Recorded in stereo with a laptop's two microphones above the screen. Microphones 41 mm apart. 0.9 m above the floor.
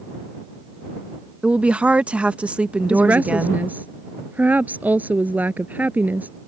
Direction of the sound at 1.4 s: 30° right (ahead or behind).